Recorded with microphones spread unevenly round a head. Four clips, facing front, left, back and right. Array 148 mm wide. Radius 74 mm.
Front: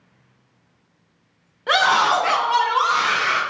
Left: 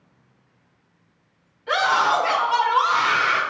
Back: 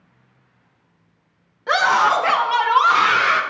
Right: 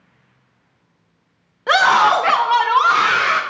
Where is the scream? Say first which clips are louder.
Right 6 dB, back 1 dB; 80° right, 1.0 m; by 3.4 s 120° right, 1.6 m.